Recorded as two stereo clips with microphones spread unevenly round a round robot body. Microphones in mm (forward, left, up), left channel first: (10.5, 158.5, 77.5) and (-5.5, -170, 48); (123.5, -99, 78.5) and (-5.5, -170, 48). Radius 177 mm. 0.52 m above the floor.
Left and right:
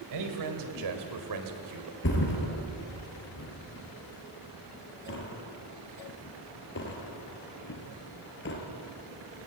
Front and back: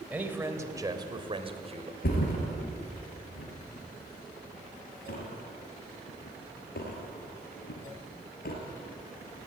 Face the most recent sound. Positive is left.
turn(degrees=30)